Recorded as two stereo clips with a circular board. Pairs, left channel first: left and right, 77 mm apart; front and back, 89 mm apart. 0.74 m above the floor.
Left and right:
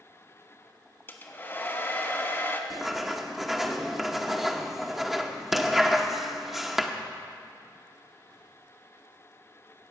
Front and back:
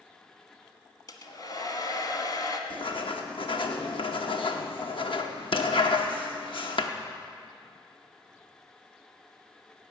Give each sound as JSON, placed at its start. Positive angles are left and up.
{"t": 1.1, "sound": "a hair dryer", "azimuth_deg": 35, "distance_m": 1.1}
{"t": 2.7, "sound": "writing", "azimuth_deg": -5, "distance_m": 0.9}